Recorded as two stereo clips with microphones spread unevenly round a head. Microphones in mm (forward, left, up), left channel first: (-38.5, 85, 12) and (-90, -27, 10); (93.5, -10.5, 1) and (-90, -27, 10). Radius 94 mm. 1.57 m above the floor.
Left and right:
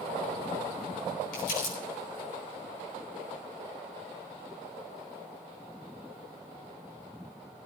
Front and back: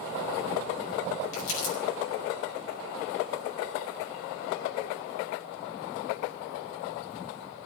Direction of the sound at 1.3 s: 35° left.